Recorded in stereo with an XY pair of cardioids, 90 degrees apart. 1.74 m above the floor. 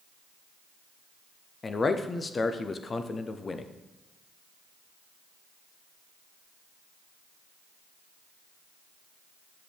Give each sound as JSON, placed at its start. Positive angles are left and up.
{"t": 1.6, "sound": "a man speaking", "azimuth_deg": 35, "distance_m": 0.7}